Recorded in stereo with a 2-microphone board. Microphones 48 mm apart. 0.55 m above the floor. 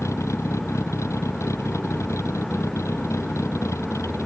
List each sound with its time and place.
0.0 s a vehicle: 90° left